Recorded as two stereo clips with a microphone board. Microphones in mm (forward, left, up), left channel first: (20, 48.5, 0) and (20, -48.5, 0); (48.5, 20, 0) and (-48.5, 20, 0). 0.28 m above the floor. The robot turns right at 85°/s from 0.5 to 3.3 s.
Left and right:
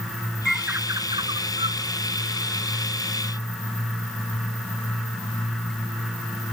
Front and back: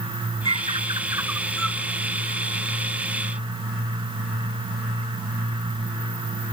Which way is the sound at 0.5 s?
Straight behind.